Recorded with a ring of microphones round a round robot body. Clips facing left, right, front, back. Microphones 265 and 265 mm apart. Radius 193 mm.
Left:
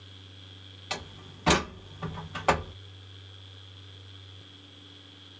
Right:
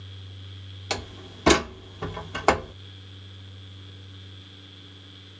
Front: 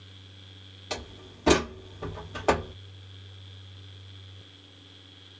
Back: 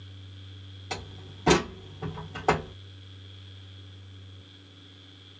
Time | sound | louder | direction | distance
0.9 | a door slam | right 7 dB, front 2 dB | 85° right | 1.2 m